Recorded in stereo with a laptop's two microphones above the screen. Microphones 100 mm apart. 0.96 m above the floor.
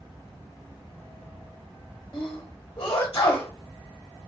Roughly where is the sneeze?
Left.